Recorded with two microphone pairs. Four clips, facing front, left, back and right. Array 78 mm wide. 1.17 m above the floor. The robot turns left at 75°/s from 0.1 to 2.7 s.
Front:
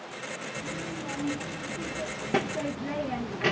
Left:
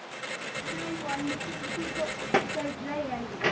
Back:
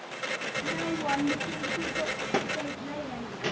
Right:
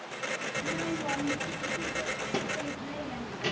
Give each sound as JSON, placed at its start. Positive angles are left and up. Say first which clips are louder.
{"t": 0.6, "sound": "a child speaking", "louder": "right 2 dB, back 6 dB", "azimuth_deg": -135, "distance_m": 1.0}